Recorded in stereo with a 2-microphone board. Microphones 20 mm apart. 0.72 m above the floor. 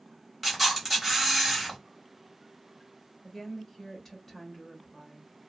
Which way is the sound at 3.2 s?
20° left (ahead or behind).